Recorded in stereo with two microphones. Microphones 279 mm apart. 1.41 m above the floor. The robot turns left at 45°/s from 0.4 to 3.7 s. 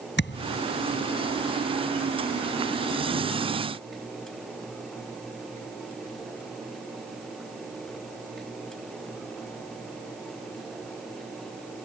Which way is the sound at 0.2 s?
40° left (ahead or behind).